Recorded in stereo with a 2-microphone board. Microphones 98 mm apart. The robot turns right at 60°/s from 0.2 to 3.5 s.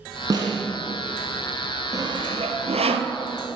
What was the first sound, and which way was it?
A snare drum, 40° right (ahead or behind).